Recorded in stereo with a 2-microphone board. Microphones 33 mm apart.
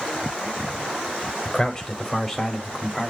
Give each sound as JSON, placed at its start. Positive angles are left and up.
{"t": 1.4, "sound": "a man speaking", "side_deg": 15, "distance_m": 1.5}